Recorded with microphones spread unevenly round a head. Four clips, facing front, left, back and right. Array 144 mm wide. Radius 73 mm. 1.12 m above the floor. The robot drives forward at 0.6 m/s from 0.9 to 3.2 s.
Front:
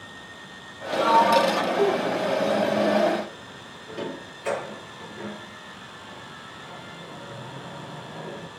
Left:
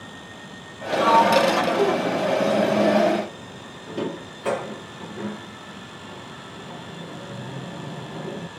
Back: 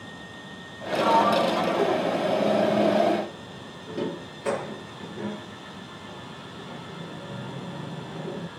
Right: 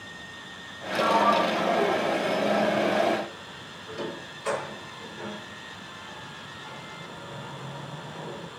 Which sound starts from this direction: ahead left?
A sliding door, at 0.9 s.